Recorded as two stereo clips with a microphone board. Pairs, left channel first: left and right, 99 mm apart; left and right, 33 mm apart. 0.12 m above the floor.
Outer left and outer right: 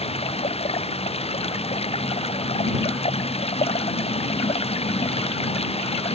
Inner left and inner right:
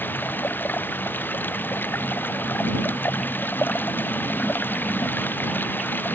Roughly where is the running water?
Left.